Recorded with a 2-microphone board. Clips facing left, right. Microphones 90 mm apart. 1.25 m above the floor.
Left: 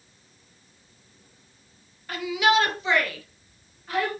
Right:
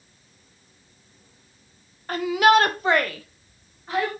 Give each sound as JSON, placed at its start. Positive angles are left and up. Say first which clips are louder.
{"t": 2.1, "sound": "a shout", "louder": "right 5 dB", "side_deg": -40, "distance_m": 1.0}